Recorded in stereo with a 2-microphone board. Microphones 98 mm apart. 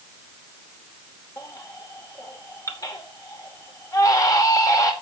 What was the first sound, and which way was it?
A baby crying, 35° left (ahead or behind).